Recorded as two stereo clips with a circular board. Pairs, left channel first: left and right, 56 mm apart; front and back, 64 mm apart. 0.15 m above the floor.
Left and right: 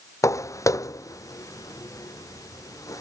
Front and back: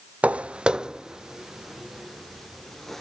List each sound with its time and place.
0.2 s footsteps: 110° left; by 3.0 s 85° left